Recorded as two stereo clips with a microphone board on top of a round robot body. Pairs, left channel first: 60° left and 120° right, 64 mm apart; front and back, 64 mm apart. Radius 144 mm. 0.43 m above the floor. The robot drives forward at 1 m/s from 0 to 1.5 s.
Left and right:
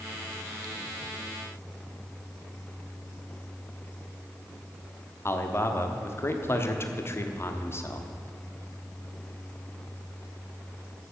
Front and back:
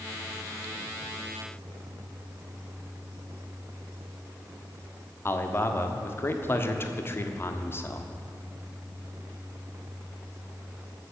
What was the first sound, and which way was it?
A man speaking, 30° left.